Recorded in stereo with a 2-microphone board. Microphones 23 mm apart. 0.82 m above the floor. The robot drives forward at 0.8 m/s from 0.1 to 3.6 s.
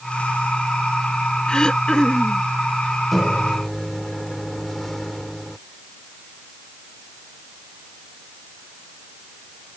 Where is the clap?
I don't hear a clap.